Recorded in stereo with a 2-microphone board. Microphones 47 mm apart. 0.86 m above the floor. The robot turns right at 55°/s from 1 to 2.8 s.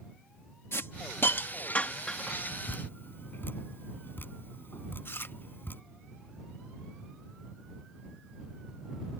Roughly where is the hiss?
Left.